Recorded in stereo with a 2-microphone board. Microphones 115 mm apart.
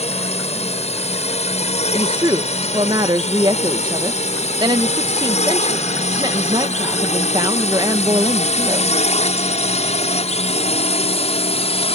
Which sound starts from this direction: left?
A drone, at 0.0 s.